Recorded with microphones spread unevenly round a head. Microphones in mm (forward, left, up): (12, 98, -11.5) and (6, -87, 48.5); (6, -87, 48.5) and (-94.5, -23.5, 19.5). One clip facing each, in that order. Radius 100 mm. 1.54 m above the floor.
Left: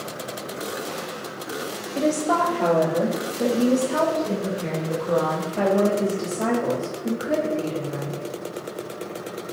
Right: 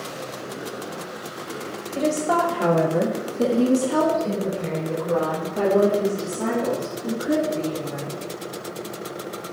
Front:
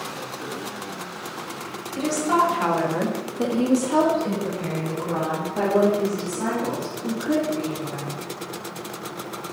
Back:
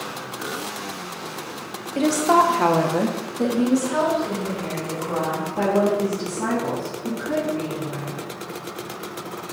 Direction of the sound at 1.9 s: Straight behind.